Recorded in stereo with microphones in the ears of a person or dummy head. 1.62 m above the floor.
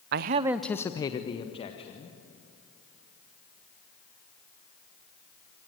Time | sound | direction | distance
0.1 | a man speaking | 50° right (ahead or behind) | 0.5 m